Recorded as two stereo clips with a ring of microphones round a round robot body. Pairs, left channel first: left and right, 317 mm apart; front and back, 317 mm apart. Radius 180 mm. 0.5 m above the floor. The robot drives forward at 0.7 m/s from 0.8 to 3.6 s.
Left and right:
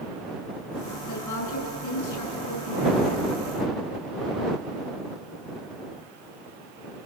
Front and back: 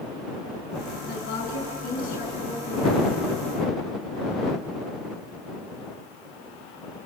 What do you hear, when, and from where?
1.1 s a woman speaking: 60° left, 7 m; by 3.2 s 75° left, 6.5 m